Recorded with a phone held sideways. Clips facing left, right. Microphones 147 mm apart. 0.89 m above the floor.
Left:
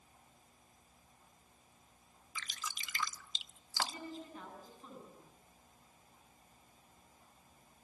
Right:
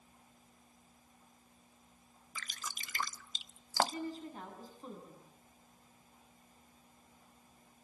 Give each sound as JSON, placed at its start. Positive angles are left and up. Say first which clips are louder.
{"t": 2.4, "sound": "dripping", "louder": "left 1 dB", "side_deg": -45, "distance_m": 0.6}
{"t": 3.8, "sound": "a woman speaking", "louder": "right 6 dB", "side_deg": -35, "distance_m": 9.5}